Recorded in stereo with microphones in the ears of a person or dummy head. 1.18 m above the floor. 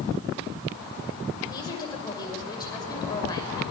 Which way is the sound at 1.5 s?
25° left (ahead or behind).